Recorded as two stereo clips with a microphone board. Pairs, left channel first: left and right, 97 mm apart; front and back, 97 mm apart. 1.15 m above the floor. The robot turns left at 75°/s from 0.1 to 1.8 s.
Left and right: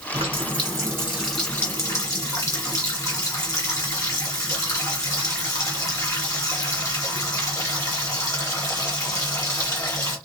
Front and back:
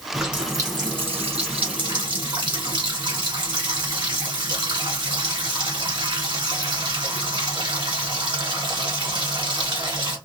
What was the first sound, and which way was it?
A running tap, 90° right.